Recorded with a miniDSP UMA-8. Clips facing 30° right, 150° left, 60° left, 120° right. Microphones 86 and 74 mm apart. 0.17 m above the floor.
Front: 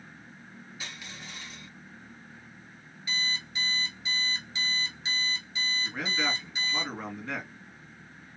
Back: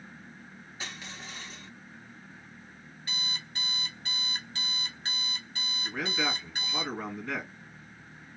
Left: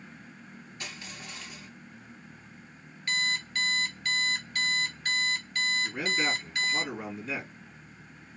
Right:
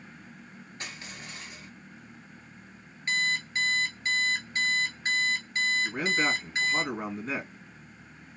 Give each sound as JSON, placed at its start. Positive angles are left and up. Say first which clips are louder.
{"t": 0.8, "sound": "crushing", "louder": "back 3 dB, right 1 dB", "azimuth_deg": -160, "distance_m": 2.5}
{"t": 3.1, "sound": "an alarm clock", "louder": "front 7 dB, right 2 dB", "azimuth_deg": 175, "distance_m": 1.1}
{"t": 5.8, "sound": "a man speaking", "louder": "back 2 dB, right 2 dB", "azimuth_deg": -125, "distance_m": 2.0}